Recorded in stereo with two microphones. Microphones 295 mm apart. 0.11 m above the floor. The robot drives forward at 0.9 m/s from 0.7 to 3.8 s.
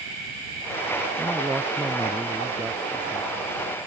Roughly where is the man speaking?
Centre.